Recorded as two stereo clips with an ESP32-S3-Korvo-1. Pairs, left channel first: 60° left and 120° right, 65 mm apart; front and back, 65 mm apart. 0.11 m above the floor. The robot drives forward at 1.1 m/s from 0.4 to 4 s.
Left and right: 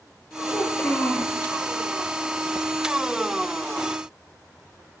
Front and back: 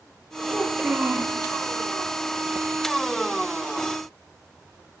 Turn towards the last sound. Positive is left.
turn(degrees=165)